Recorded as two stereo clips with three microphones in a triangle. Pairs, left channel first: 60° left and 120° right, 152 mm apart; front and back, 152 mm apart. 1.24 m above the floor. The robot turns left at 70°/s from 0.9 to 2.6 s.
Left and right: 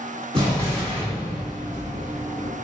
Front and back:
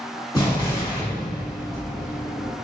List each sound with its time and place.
0.3 s an explosion: 65° right, 1.5 m; by 2.5 s straight behind, 1.5 m